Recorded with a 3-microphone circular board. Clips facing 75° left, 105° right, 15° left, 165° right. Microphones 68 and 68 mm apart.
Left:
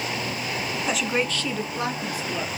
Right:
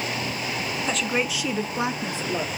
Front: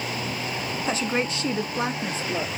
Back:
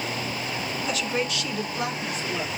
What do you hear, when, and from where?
0.9 s a woman speaking: straight ahead, 1.2 m; by 2.5 s 45° right, 3 m